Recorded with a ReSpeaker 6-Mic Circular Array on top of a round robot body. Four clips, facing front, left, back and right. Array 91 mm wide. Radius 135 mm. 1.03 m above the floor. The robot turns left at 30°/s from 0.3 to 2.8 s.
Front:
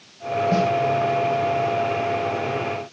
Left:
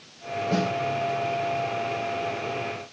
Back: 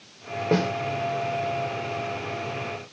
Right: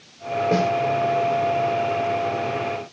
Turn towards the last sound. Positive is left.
turn(degrees=130)